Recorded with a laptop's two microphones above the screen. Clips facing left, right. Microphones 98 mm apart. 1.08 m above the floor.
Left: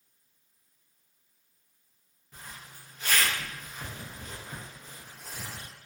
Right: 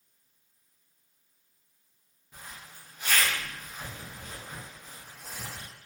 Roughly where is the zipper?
Centre.